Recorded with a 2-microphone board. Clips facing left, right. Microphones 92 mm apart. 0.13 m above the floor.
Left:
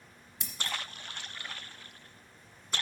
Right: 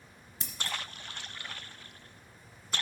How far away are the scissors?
About 1.8 m.